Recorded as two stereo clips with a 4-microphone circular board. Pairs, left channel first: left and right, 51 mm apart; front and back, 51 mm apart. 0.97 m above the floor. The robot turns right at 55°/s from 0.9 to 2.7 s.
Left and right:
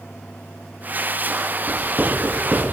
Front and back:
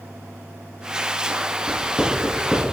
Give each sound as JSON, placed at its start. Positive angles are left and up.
{"t": 1.7, "sound": "writing", "azimuth_deg": -135, "distance_m": 5.5}